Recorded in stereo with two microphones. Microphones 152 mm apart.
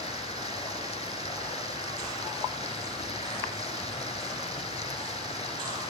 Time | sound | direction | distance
0.0 | running water | 40° left (ahead or behind) | 4 m